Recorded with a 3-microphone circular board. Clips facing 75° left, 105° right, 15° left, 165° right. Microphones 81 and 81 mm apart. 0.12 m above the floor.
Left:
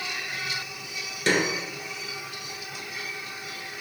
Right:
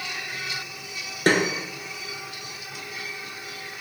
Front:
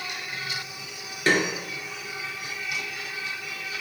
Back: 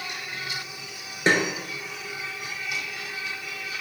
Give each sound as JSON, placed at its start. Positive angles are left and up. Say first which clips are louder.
{"t": 1.3, "sound": "a snare drum", "louder": "right 3 dB, back 1 dB", "azimuth_deg": -110, "distance_m": 0.6}